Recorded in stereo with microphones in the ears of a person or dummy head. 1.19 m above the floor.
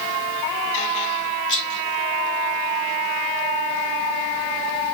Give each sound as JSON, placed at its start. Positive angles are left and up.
{"t": 1.5, "sound": "a rattle", "side_deg": 65, "distance_m": 2.0}